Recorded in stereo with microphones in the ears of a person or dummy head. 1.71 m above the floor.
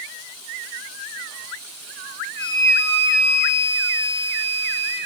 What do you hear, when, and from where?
2.4 s a flute: 60° left (ahead or behind), 4 m